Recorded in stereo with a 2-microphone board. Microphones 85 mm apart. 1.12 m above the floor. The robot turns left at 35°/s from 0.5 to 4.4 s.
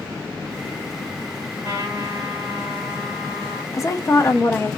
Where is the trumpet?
150° right, 1.4 m; by 3.6 s 140° left, 1.4 m.